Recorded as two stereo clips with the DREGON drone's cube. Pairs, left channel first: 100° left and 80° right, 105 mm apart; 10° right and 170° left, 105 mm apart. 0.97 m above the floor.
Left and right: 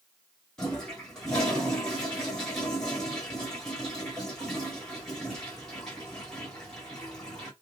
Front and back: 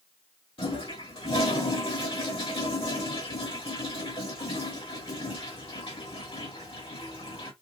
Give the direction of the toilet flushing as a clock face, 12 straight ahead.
11 o'clock.